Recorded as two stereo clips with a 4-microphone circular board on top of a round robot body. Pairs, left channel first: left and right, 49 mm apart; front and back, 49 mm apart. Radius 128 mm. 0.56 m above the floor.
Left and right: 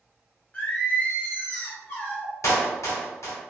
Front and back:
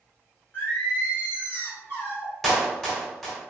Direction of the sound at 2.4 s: 85° left.